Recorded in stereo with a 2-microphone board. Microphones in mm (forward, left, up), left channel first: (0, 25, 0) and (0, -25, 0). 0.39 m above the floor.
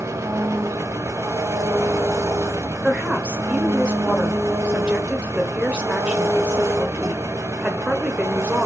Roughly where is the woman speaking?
Right.